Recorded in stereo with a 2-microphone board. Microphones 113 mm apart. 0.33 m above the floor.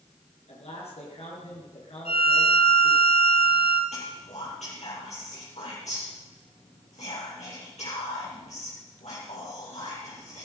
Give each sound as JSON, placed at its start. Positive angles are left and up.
{"t": 0.5, "sound": "a man speaking", "side_deg": 65, "distance_m": 6.0}
{"t": 2.0, "sound": "a violin", "side_deg": 65, "distance_m": 2.0}
{"t": 3.9, "sound": "whispering", "side_deg": 85, "distance_m": 7.0}